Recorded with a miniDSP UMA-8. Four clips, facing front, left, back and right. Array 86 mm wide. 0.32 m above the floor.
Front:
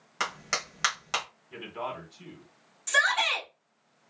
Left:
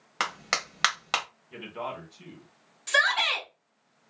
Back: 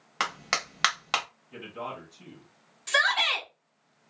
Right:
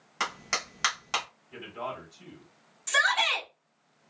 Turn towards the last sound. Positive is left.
turn(degrees=140)